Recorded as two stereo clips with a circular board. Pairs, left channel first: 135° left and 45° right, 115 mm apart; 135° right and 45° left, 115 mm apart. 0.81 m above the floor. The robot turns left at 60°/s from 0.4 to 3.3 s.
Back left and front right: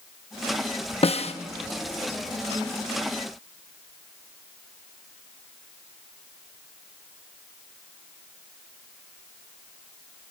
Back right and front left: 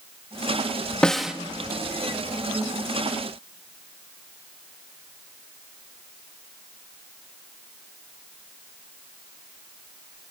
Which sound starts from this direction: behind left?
A snare drum, at 1.0 s.